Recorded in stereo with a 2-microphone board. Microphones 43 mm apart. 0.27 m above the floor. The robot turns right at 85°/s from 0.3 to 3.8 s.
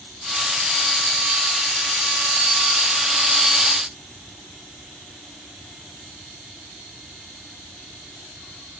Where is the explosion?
No explosion in this recording.